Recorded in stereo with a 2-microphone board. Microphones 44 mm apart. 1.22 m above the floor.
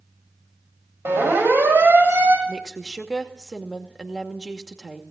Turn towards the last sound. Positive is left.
turn(degrees=0)  # may be behind; listen again after turning